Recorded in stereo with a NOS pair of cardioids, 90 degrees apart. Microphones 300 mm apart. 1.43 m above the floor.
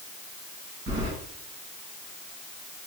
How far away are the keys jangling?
About 1.7 m.